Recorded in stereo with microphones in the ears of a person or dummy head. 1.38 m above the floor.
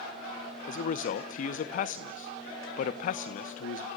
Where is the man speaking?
45° left (ahead or behind), 0.9 m.